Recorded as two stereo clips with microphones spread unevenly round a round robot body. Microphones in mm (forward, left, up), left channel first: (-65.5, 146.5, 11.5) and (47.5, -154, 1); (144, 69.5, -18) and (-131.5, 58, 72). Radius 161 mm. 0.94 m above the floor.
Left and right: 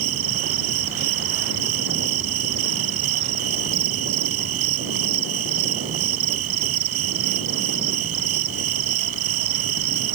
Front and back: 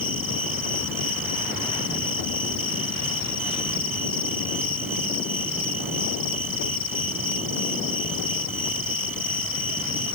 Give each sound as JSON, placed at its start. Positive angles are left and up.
{"t": 0.0, "sound": "an insect", "azimuth_deg": -90}